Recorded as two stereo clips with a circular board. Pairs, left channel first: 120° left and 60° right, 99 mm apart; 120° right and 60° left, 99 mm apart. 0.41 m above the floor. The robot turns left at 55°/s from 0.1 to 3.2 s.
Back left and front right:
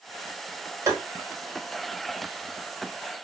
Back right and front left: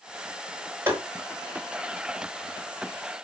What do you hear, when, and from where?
0.9 s tapping: 5° right, 1.1 m; by 1.0 s 15° right, 1.1 m